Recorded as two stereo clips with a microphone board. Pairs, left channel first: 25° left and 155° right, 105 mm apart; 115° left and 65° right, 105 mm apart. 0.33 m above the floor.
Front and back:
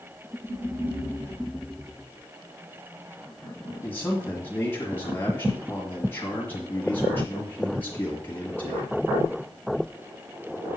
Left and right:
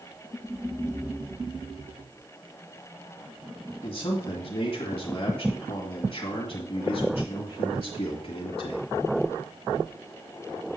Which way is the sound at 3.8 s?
90° left.